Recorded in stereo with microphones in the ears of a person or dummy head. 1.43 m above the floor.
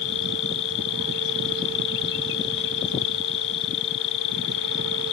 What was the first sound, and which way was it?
An insect, 70° left (ahead or behind).